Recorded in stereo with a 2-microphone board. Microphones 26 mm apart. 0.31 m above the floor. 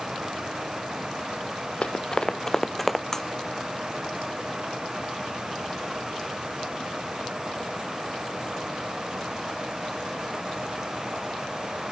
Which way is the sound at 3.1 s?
20° left (ahead or behind).